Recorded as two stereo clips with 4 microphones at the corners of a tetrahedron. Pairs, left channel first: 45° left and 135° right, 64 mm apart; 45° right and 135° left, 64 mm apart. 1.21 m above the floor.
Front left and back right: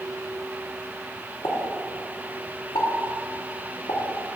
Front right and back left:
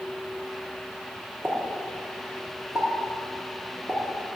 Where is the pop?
50° left, 2.5 m.